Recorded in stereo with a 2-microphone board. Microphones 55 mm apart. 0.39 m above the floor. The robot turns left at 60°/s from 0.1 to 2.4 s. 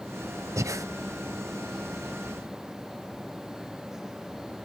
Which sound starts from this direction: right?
Breathing, at 0.6 s.